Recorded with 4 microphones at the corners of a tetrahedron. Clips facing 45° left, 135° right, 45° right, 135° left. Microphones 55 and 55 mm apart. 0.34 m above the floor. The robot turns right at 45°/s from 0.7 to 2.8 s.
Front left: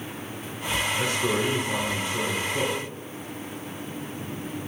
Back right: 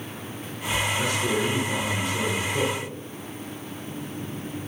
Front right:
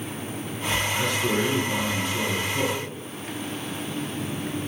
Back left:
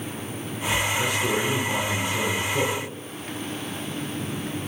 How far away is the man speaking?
About 1.2 m.